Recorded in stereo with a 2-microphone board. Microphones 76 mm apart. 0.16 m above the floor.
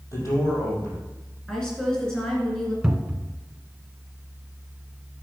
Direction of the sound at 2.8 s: 10° right (ahead or behind).